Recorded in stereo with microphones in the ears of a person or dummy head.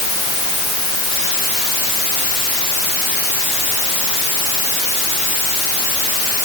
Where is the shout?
No shout in this recording.